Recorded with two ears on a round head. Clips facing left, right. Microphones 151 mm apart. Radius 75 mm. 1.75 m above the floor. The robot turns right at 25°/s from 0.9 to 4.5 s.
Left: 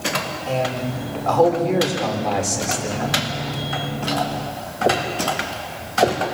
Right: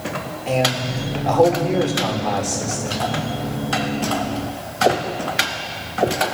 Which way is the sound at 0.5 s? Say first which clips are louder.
Right 3 dB; 20° right.